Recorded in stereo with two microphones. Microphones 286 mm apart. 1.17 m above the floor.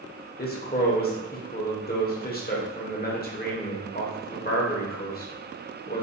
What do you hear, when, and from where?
0.4 s a man speaking: 30° left (ahead or behind), 0.7 m